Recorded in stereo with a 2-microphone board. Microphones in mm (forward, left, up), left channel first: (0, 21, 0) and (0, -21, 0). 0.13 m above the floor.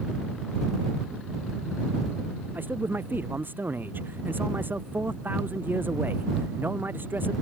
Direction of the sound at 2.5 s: 55° right (ahead or behind).